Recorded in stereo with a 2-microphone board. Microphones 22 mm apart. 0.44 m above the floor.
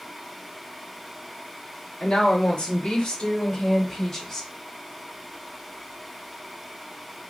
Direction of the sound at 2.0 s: 45° left (ahead or behind).